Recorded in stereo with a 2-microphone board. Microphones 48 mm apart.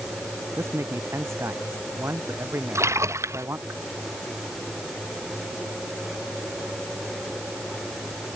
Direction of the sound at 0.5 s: 65° right (ahead or behind).